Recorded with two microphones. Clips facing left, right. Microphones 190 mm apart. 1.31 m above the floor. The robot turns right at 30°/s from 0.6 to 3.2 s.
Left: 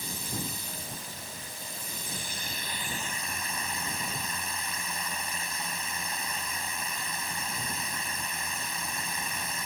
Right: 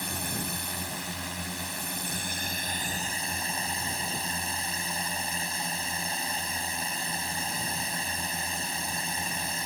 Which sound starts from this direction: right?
A drone, at 0.0 s.